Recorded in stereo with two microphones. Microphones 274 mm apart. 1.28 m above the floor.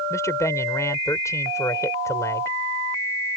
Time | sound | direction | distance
0.1 | a man speaking | 10° left (ahead or behind) | ?